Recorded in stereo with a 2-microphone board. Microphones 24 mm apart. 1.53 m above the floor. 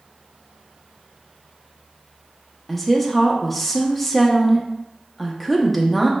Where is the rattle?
No rattle in this recording.